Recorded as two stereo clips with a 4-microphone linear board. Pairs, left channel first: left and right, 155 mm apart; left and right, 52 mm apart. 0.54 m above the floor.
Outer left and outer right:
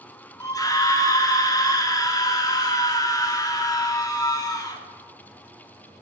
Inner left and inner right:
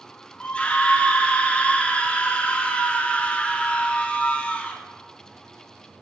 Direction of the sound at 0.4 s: 20° left (ahead or behind).